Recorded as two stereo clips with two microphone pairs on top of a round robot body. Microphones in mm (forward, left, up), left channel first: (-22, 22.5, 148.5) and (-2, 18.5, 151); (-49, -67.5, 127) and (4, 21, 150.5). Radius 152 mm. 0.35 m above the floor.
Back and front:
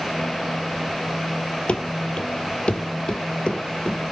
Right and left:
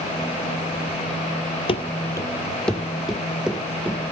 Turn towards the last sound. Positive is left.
turn(degrees=130)